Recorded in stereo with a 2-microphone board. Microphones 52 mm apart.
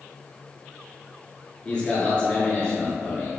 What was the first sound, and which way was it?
A man speaking, 20° left (ahead or behind).